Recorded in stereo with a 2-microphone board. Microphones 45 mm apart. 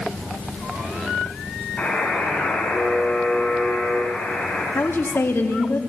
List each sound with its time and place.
1.8 s a buzzer: 30° left (ahead or behind), 10 m
4.8 s a woman speaking: 65° left (ahead or behind), 2 m